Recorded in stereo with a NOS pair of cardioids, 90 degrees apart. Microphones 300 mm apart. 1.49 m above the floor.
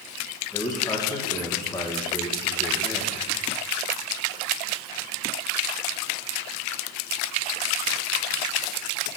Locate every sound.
0.5 s a man speaking: 10° left, 1.5 m